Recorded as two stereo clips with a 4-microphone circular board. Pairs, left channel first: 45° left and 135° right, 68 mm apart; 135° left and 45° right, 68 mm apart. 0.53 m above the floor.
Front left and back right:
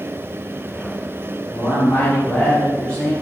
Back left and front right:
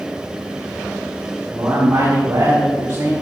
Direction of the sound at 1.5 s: 10° right.